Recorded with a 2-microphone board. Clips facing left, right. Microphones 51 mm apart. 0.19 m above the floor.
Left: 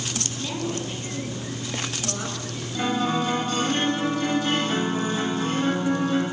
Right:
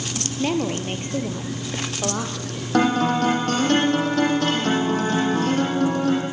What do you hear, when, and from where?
0.4 s a woman speaking: 50° right (ahead or behind), 4.5 m; by 2.6 s 70° right (ahead or behind), 5.5 m
2.7 s a guitar: 75° right (ahead or behind), 8 m